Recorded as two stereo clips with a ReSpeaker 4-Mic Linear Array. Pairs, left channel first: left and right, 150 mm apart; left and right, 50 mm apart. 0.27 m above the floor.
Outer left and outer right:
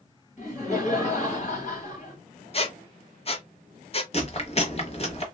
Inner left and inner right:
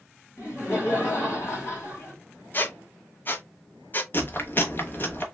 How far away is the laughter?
About 1.8 m.